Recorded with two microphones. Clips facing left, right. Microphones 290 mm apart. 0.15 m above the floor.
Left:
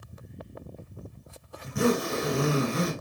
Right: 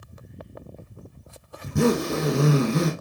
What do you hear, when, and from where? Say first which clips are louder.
1.6 s a zipper: right 4 dB; 50° right (ahead or behind), 1.6 m